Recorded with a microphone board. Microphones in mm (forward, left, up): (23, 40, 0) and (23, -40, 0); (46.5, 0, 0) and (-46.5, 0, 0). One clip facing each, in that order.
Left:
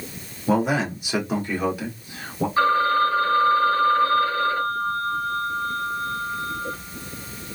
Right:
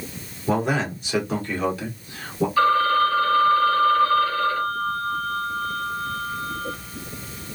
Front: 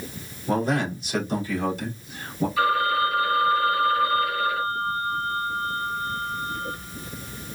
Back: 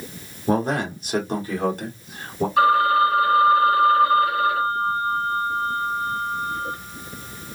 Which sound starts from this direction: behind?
A man speaking, at 0.5 s.